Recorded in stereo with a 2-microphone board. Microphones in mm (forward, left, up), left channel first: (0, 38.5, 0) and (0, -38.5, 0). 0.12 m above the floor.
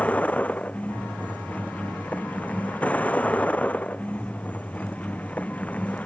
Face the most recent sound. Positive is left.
turn(degrees=15)  # may be behind; listen again after turning